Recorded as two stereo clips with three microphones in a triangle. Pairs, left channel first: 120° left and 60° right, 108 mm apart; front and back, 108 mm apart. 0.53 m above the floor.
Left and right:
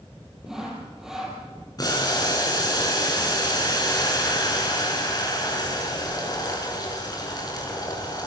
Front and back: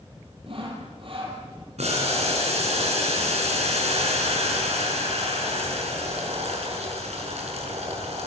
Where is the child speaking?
I don't hear a child speaking.